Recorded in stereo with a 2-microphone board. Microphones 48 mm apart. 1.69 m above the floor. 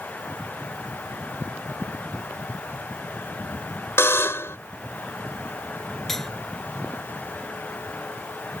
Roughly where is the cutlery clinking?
Centre.